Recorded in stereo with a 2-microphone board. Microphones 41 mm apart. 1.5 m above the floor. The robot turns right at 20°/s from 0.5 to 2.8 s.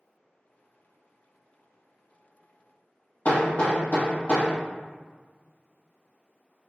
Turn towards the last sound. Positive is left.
turn(degrees=40)  # may be behind; listen again after turning